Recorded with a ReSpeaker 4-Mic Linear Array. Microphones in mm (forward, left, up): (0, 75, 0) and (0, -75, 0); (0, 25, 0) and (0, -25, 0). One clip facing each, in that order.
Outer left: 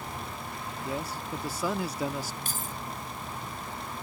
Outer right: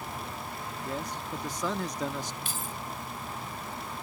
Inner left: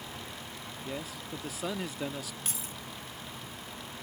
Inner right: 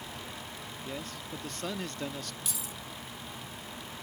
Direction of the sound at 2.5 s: 40° left (ahead or behind).